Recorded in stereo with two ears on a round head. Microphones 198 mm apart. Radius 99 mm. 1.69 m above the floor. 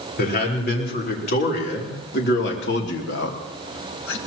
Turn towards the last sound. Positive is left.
turn(degrees=65)  # may be behind; listen again after turning